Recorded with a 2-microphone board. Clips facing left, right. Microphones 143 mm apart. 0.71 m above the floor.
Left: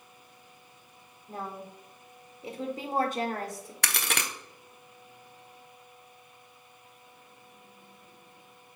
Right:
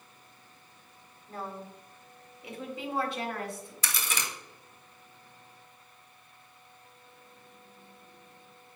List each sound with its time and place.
1.3 s a woman speaking: 15° left (ahead or behind), 2.5 m; by 3.7 s 40° left (ahead or behind), 1.6 m
3.8 s a crack: 75° left (ahead or behind), 0.9 m